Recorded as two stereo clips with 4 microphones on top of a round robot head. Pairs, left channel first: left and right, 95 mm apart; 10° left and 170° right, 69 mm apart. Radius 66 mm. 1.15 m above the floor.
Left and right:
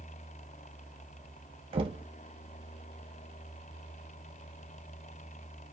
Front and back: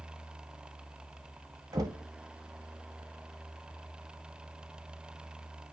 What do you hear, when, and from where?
1.7 s knocking: 125° right, 1.9 m